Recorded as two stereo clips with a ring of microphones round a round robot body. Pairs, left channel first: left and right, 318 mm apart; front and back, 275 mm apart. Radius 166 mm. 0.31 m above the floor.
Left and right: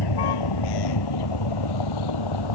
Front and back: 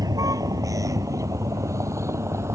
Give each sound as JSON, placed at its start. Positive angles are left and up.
{"t": 0.0, "sound": "a vehicle", "azimuth_deg": 105}